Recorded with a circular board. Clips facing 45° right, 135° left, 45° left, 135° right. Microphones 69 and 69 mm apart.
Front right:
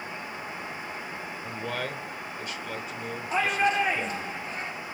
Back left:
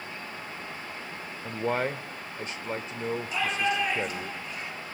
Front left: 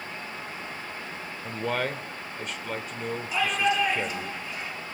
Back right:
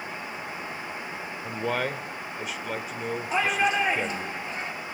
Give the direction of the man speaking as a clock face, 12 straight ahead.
7 o'clock.